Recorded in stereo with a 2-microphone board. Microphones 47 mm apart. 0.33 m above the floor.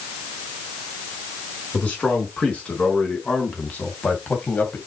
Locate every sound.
1.7 s a man speaking: 30° left (ahead or behind), 4.5 m; by 4.8 s 35° left (ahead or behind), 2.5 m